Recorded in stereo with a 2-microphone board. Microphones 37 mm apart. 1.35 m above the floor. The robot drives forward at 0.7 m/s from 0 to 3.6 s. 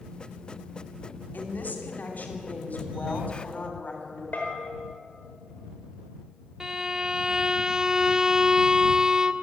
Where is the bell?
55° left (ahead or behind), 5 m.